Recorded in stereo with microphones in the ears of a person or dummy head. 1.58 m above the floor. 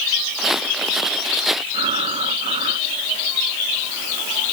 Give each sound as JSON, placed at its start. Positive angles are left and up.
{"t": 0.4, "sound": "footsteps", "side_deg": 5}
{"t": 1.7, "sound": "breathing", "side_deg": -40}